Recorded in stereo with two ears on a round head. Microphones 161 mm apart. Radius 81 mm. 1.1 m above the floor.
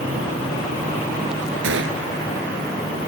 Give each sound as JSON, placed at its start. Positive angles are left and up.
{"t": 1.6, "sound": "a gunshot", "side_deg": -80}